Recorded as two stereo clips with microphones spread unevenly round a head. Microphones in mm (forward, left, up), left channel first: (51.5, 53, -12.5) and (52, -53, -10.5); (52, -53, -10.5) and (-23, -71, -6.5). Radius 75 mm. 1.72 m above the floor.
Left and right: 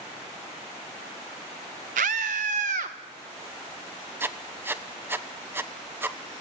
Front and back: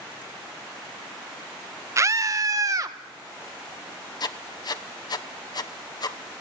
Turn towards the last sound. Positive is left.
turn(degrees=-20)